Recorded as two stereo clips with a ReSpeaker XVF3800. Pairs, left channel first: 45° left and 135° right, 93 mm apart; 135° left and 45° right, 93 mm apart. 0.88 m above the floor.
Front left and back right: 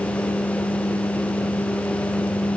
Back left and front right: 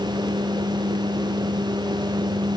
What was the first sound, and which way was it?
Only background noise.